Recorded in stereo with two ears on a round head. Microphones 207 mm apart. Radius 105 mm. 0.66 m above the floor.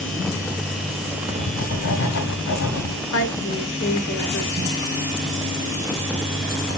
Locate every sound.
1.3 s writing: 70° left (ahead or behind), 1.8 m
3.1 s a woman speaking: 55° left (ahead or behind), 2 m